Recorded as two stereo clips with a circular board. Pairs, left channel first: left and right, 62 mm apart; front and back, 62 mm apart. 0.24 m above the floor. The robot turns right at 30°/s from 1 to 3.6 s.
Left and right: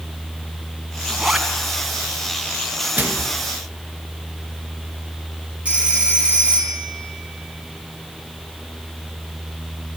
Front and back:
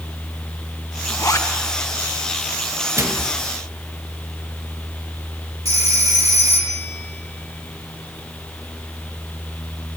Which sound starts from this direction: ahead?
A zipper, at 1.1 s.